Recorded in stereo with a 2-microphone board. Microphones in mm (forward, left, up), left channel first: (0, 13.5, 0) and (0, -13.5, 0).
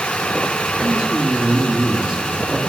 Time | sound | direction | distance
0.8 | a man speaking | 20° right (ahead or behind) | 7.5 m